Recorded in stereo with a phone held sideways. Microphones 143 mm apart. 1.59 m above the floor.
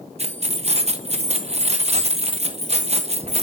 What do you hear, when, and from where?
0.2 s keys jangling: 45° right (ahead or behind), 0.9 m